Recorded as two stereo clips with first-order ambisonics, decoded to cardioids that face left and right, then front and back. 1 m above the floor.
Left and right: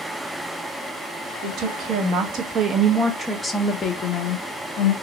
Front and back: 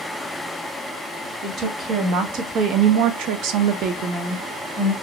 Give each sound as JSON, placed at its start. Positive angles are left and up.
{"t": 1.4, "sound": "a woman speaking", "azimuth_deg": -125, "distance_m": 1.3}